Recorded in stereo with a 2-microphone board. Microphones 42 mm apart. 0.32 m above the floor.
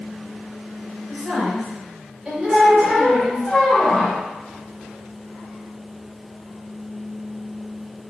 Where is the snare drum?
No snare drum in this recording.